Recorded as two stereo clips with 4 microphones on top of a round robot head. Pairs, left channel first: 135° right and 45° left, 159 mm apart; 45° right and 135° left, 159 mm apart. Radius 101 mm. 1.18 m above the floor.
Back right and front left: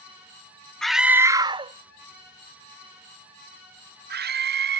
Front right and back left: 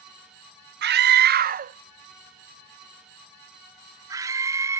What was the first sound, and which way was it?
A scream, 135° left.